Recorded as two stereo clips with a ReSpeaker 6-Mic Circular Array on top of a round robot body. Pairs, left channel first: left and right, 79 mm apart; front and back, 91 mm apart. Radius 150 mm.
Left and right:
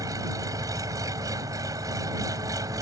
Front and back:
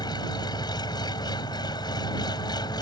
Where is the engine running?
45° right.